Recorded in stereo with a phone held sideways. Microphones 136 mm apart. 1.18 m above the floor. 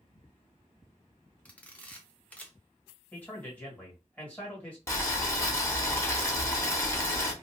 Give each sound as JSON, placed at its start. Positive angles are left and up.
{"t": 1.4, "sound": "a camera shutter", "side_deg": 10, "distance_m": 0.6}
{"t": 3.1, "sound": "a man speaking", "side_deg": 10, "distance_m": 1.8}
{"t": 4.9, "sound": "boiling", "side_deg": 20, "distance_m": 0.8}